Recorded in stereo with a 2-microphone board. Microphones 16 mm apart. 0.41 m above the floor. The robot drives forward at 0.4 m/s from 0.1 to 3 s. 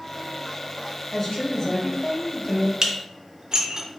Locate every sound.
1.1 s a woman speaking: 30° left (ahead or behind), 1.8 m; by 2.7 s 40° left (ahead or behind), 1.4 m
2.8 s dishes clattering: 35° right (ahead or behind), 0.5 m